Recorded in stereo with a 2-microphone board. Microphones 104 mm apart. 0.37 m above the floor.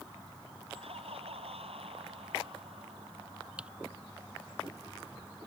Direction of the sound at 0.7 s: 80° right.